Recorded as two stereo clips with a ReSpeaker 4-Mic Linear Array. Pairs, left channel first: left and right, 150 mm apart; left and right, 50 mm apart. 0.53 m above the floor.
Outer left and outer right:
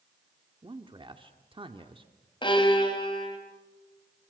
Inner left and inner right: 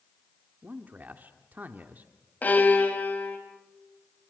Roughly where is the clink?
No clink in this recording.